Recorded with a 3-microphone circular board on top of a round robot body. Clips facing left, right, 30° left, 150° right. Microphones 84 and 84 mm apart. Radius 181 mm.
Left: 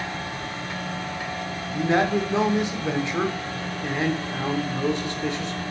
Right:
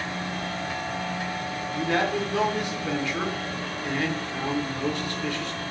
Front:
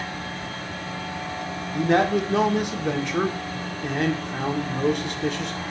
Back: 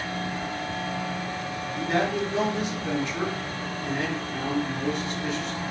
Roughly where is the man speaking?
Ahead left.